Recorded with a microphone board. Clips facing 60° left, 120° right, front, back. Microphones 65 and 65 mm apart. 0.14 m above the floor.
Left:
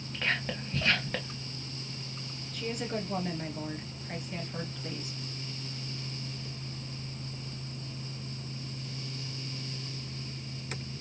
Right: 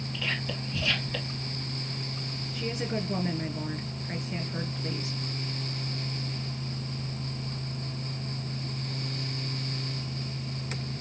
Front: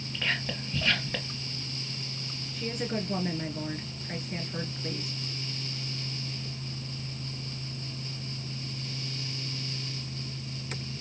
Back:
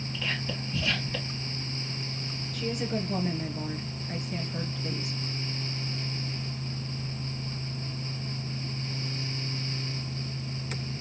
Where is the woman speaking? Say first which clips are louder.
Right 2 dB, back 1 dB; 55° right, 2 m.